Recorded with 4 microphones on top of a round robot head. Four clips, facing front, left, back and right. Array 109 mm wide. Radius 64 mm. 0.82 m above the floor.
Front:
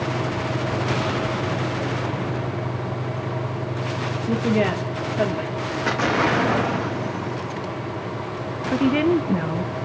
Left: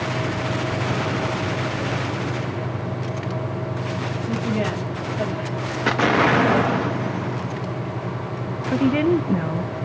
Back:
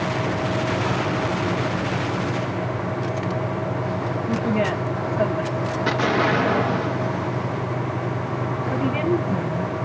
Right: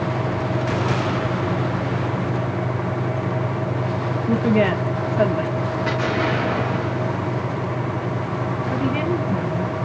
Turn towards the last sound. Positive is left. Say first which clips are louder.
# left 6 dB, front 5 dB
turn(degrees=50)